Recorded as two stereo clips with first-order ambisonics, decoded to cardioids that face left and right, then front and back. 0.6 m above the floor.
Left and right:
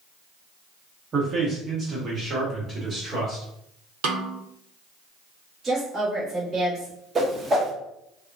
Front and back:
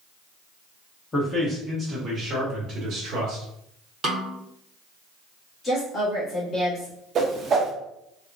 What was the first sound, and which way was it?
A man speaking, 55° right.